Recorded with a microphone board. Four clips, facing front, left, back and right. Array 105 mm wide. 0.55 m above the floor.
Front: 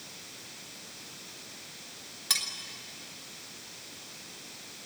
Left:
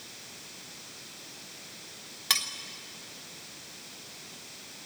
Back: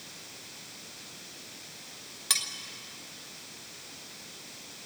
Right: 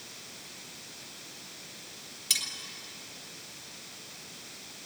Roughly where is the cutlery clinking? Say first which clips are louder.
Left 8 dB, back 1 dB; left.